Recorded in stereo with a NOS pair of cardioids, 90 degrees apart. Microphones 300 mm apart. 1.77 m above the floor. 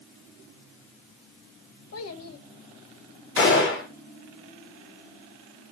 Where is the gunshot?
45° left, 5 m.